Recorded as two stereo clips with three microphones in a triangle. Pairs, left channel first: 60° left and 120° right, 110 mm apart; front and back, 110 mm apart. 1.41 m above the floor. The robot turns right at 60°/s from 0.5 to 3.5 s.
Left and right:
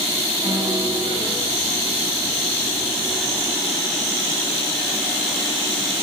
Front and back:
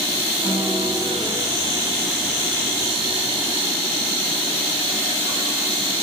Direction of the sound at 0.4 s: 175° right.